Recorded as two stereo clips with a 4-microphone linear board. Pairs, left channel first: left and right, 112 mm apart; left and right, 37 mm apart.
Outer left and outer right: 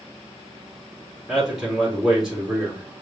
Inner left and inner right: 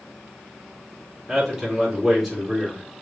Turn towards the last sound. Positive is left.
turn(degrees=-5)  # may be behind; listen again after turning